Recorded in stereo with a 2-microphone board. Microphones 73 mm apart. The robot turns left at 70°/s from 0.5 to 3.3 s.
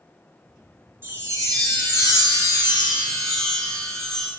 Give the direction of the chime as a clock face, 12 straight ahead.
1 o'clock.